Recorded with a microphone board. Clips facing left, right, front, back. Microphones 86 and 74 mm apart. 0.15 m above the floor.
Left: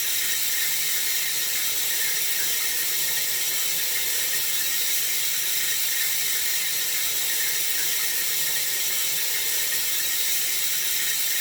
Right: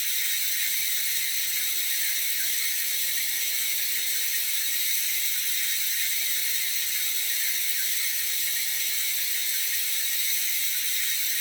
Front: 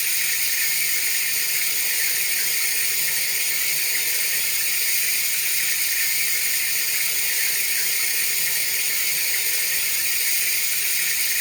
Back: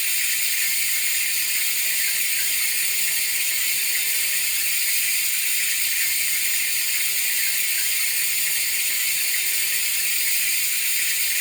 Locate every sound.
0.0 s running water: 75° left, 0.8 m